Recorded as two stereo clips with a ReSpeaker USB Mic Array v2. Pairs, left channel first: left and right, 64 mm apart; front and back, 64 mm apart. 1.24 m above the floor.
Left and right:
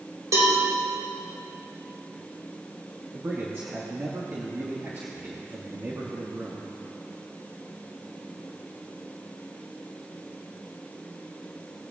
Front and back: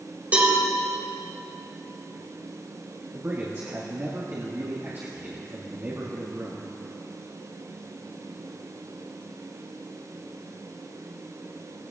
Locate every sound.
0.3 s a cowbell: 120° right, 3.5 m
3.1 s a man speaking: 135° right, 1.9 m